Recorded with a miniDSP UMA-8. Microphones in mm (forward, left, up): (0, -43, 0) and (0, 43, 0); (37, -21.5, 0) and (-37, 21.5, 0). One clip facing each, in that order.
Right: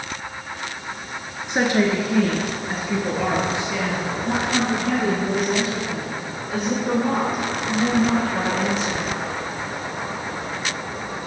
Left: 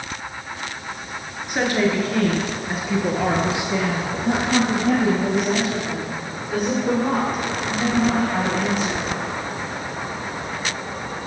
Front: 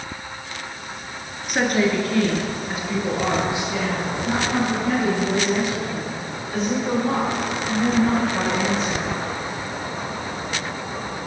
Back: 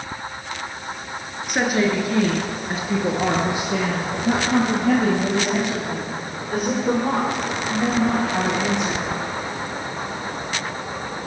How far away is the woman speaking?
About 1.2 m.